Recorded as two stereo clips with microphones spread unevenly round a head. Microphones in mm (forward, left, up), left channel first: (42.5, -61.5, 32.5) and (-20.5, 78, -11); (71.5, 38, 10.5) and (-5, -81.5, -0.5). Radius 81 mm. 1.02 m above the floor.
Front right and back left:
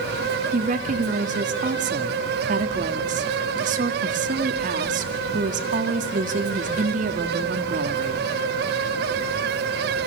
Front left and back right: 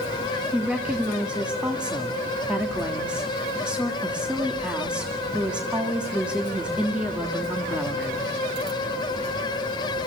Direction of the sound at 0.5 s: 155° left.